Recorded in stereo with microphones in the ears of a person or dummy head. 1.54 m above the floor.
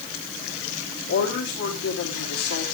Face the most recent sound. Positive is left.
turn(degrees=75)  # may be behind; listen again after turning